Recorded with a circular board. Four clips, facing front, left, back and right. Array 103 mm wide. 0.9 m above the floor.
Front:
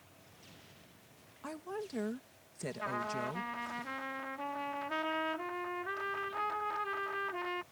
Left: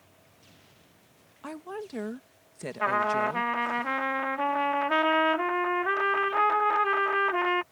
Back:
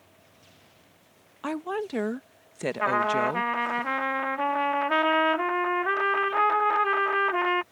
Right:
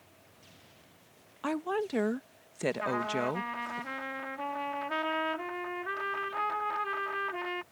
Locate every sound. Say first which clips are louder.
1.4 s a woman speaking: right 6 dB, back 12 dB; 150° right
2.8 s a trumpet: left 10 dB, back 14 dB; 145° left